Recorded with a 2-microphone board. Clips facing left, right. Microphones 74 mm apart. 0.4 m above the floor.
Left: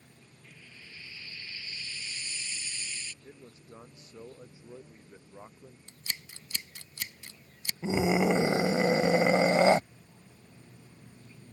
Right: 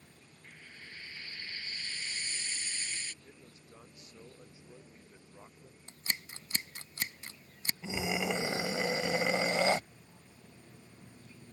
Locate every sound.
0.4 s frying: 55° right (ahead or behind)
3.2 s a man speaking: 30° left (ahead or behind)
5.9 s scissors: 40° right (ahead or behind)
7.8 s a scream: 35° left (ahead or behind)